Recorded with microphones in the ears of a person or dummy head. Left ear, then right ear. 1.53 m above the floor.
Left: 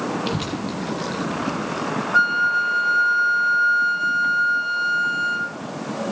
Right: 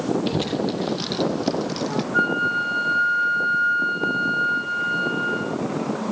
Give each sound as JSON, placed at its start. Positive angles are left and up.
{"t": 0.3, "sound": "a child speaking", "side_deg": 0, "distance_m": 0.7}
{"t": 2.1, "sound": "a flute", "side_deg": 85, "distance_m": 1.5}